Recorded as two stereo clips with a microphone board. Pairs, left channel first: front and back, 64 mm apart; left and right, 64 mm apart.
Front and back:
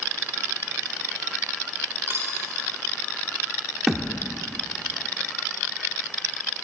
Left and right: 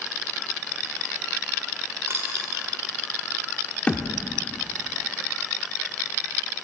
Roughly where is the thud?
Left.